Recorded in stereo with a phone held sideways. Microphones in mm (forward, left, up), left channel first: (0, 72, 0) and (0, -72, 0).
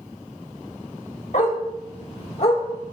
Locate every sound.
1.3 s a dog barking: 55° left (ahead or behind), 1.7 m; by 2.6 s 45° left (ahead or behind), 2.5 m